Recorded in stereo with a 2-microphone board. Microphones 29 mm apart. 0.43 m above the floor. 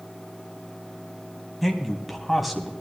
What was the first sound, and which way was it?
A man speaking, centre (ahead or behind).